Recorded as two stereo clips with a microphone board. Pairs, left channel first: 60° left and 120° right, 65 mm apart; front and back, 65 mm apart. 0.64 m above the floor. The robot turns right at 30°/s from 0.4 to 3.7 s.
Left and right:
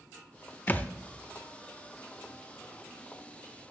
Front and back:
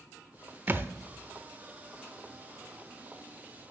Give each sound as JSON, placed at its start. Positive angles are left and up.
{"t": 0.7, "sound": "a thud", "azimuth_deg": 120, "distance_m": 0.7}